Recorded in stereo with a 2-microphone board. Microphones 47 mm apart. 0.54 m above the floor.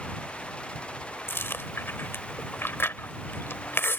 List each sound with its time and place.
1.3 s chewing: 55° left (ahead or behind)